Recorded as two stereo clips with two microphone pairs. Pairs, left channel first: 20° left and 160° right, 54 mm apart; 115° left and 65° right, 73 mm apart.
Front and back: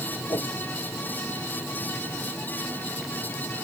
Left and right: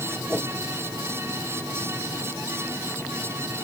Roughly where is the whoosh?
Ahead.